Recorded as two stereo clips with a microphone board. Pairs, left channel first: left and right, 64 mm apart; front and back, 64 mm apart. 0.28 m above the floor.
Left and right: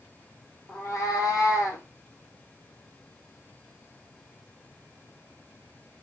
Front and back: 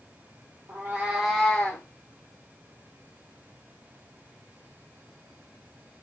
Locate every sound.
0.7 s a cat meowing: 135° left, 1.2 m; by 1.8 s 50° left, 1.2 m